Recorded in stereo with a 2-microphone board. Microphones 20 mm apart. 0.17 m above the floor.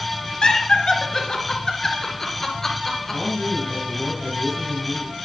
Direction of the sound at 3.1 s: 35° right (ahead or behind).